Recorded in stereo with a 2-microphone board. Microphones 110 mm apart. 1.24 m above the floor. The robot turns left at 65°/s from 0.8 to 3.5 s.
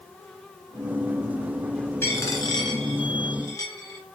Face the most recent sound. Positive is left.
turn(degrees=35)  # may be behind; listen again after turning